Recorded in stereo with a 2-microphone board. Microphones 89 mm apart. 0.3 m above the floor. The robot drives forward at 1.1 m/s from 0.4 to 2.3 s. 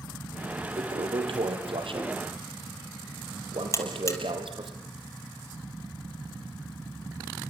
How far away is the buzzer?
About 4 m.